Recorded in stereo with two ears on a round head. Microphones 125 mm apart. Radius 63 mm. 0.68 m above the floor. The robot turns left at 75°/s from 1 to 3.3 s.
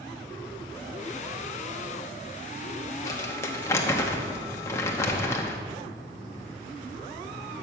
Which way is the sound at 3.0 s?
25° left (ahead or behind).